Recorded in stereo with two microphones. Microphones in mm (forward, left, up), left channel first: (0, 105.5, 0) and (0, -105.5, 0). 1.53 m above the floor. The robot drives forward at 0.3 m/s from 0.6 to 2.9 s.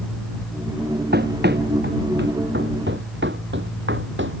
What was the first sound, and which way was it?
Running footsteps, 45° right (ahead or behind).